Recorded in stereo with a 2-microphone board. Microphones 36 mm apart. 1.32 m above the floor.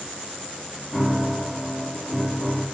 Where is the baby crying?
I don't hear a baby crying.